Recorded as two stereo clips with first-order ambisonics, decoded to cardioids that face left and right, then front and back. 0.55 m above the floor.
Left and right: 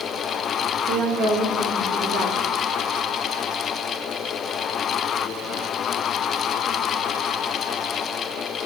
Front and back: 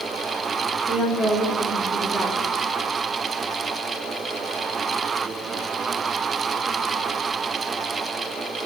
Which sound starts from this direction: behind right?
A woman speaking, at 0.9 s.